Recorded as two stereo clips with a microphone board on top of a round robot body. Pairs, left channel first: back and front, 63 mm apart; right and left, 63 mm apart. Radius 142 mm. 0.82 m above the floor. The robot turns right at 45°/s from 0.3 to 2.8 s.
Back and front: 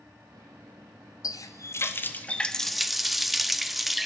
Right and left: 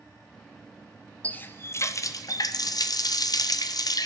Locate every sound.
1.2 s a running tap: 155° right, 0.6 m; by 4.1 s 85° right, 0.6 m